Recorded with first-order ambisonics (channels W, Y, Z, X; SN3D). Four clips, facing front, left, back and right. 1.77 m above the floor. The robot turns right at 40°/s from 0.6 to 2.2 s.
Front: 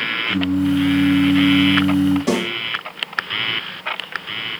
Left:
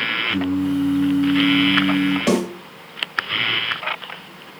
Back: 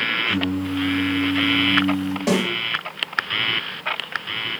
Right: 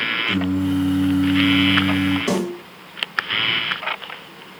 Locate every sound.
0.3 s singing: 85° right, 1.3 m; by 2.2 s 25° right, 1.3 m
2.3 s a snare drum: 105° left, 3 m